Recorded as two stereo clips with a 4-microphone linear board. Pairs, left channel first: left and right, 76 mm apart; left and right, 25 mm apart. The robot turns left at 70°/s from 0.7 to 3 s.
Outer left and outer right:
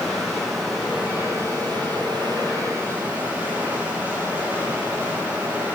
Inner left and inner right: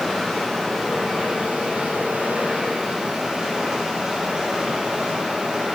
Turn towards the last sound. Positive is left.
turn(degrees=-160)